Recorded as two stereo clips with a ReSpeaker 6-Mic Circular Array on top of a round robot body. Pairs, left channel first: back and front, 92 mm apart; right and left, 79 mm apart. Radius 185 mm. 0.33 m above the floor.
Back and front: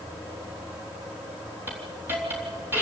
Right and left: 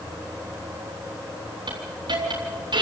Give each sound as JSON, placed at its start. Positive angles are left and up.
{"t": 1.7, "sound": "a hiss", "azimuth_deg": 65, "distance_m": 4.0}